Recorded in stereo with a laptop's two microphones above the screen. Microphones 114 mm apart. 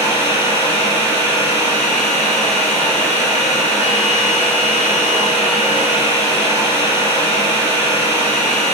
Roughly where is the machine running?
Right.